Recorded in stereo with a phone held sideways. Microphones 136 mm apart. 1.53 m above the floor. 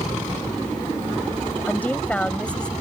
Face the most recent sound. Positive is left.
turn(degrees=5)  # may be behind; listen again after turning